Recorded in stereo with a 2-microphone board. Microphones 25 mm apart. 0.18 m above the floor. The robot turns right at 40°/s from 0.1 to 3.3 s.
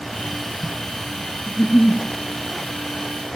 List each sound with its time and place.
1.5 s a giggle: 70° left (ahead or behind), 1.7 m; by 2.0 s 55° left (ahead or behind), 1.7 m